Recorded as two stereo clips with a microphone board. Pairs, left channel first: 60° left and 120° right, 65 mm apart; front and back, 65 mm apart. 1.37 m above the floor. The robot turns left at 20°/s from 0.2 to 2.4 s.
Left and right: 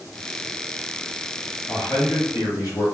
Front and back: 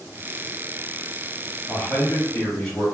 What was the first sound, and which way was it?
A man speaking, 65° left.